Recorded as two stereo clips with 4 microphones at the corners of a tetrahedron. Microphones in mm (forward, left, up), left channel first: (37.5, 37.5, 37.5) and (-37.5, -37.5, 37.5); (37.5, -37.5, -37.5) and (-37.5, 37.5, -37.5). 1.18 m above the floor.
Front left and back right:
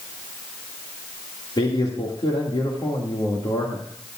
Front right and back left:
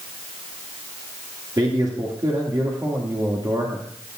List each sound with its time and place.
1.6 s a man speaking: 85° left, 2.5 m